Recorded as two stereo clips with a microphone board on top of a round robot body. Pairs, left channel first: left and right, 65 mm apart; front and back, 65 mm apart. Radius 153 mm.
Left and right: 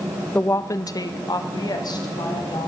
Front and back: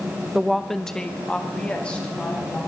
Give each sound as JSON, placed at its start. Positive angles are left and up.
{"t": 0.3, "sound": "a woman speaking", "azimuth_deg": 110, "distance_m": 0.7}